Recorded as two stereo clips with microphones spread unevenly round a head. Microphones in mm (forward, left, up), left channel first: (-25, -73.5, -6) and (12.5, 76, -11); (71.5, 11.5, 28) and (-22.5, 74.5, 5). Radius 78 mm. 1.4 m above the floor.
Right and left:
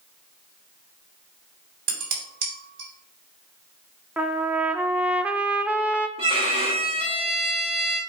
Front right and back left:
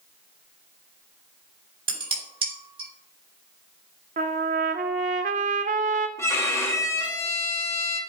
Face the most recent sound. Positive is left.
turn(degrees=20)